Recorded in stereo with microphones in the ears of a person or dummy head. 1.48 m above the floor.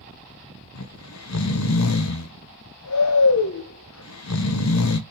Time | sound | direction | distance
0.8 | snoring | 85° left | 1.3 m